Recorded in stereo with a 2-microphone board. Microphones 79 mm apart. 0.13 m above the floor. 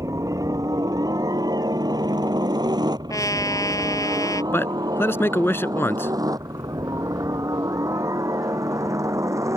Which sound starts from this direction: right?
A helicopter, at 0.0 s.